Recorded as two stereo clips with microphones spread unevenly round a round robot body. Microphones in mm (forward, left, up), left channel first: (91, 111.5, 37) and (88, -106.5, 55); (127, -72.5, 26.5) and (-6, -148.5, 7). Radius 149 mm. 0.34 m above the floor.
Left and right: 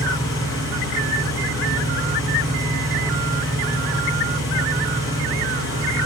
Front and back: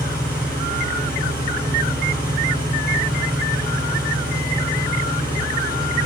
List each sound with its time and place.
0.0 s an engine running: 125° left, 5.5 m